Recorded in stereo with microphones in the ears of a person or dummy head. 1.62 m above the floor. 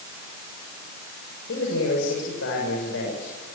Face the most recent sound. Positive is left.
turn(degrees=80)